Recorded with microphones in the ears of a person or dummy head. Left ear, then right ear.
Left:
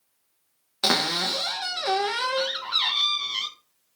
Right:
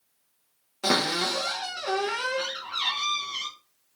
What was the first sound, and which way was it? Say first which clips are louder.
A cupboard door: left 2 dB; 40° left (ahead or behind).